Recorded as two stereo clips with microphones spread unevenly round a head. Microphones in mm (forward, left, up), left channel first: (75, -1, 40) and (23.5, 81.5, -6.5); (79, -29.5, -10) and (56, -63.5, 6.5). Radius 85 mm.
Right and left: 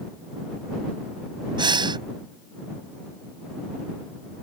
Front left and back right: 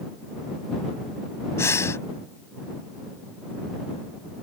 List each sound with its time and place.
1.6 s breathing: 65° left